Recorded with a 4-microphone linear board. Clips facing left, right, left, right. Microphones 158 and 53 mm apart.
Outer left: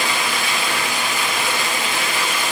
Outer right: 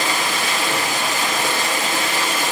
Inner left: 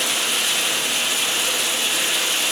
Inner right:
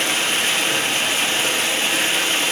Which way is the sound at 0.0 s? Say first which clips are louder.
Outer right 1 dB, inner right 3 dB; 45° right (ahead or behind).